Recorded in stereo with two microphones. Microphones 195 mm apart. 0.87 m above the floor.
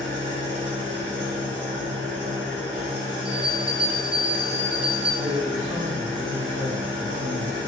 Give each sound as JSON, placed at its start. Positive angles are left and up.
{"t": 0.0, "sound": "an engine running", "side_deg": -70, "distance_m": 1.4}
{"t": 3.2, "sound": "a bell", "side_deg": -5, "distance_m": 0.6}
{"t": 5.2, "sound": "a man speaking", "side_deg": -35, "distance_m": 1.6}